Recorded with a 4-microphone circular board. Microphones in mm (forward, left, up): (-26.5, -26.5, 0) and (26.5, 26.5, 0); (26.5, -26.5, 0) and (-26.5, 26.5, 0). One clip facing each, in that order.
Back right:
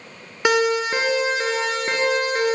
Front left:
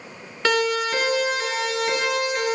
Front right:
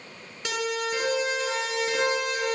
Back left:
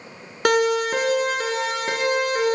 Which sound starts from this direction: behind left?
A siren, at 0.5 s.